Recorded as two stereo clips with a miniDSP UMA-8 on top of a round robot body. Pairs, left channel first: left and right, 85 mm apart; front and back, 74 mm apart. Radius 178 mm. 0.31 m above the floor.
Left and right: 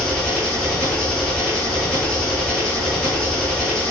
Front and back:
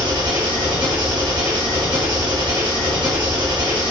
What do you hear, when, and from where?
0.0 s an engine running: 165° left, 4.5 m